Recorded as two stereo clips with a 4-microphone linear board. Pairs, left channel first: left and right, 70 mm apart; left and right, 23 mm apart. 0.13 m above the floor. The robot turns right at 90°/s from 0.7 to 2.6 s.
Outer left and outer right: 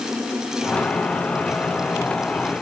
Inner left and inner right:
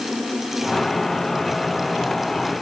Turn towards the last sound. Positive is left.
No sound to turn to.